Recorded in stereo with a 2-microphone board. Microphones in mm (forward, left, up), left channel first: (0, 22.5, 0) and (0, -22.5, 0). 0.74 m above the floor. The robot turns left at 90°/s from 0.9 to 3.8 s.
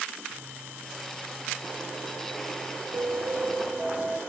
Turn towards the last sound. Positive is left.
turn(degrees=-150)